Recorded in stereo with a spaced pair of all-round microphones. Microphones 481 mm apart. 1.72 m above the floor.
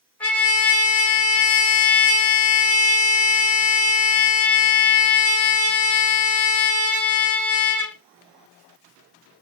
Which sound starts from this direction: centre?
A trumpet, at 0.2 s.